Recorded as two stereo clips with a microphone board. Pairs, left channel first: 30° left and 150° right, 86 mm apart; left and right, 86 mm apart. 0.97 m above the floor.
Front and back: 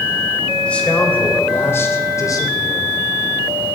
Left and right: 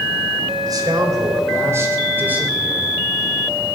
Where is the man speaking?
45° right, 4 m; by 3.0 s 5° right, 3 m.